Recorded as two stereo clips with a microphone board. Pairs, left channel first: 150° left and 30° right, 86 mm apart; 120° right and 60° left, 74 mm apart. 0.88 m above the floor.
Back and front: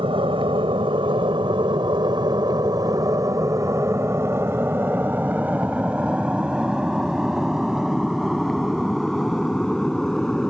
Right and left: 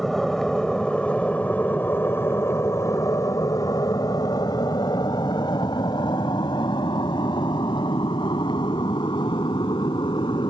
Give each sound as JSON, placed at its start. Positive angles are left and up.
{"t": 0.0, "sound": "an aircraft", "azimuth_deg": -35}